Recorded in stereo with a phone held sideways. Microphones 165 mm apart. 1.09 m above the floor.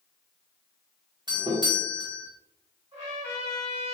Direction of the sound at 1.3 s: 25° right (ahead or behind).